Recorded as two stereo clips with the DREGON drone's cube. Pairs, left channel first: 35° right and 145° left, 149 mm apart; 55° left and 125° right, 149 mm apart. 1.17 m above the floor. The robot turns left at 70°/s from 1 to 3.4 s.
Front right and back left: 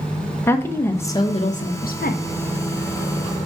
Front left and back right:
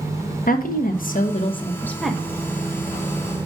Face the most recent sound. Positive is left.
turn(degrees=-130)